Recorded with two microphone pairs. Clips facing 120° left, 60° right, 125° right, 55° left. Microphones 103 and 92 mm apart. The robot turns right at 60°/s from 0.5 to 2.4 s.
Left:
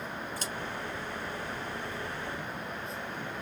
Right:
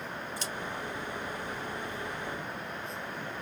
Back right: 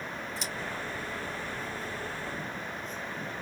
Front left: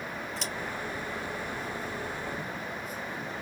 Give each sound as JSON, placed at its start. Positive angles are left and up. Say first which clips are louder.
{"t": 0.4, "sound": "scissors", "louder": "even, front left 1 dB", "azimuth_deg": 150, "distance_m": 2.0}